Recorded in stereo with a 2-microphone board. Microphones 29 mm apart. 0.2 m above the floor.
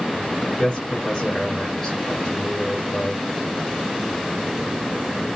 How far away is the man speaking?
About 2.5 m.